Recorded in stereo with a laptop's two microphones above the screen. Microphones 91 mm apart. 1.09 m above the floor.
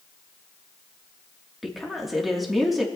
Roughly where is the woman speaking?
Centre.